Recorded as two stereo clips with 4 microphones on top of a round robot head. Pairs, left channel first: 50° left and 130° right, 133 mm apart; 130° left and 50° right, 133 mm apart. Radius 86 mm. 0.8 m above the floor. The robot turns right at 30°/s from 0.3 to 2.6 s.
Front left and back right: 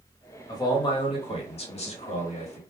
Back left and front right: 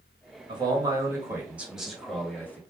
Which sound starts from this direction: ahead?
A man speaking, at 0.5 s.